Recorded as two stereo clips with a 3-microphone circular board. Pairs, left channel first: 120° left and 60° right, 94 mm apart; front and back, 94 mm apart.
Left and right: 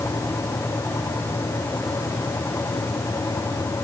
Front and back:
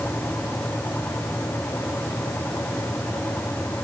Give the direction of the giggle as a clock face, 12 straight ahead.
No giggle in this recording.